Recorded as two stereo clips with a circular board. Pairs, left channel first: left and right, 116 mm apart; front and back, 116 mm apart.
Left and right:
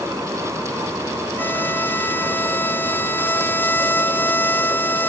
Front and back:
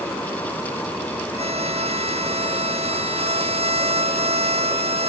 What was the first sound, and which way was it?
A violin, 160° left.